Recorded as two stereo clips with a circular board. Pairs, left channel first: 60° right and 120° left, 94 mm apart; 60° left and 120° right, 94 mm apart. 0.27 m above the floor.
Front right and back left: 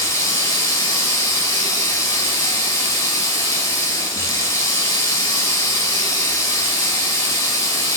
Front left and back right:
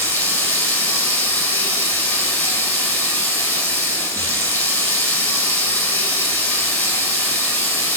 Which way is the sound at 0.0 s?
15° right.